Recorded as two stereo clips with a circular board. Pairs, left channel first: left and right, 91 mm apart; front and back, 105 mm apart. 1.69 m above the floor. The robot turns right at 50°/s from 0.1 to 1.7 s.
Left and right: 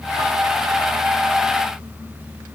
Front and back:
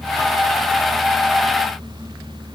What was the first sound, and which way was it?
Only background noise.